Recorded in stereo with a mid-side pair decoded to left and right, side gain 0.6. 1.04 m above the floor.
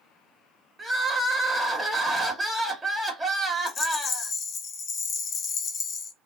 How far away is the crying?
About 1.0 m.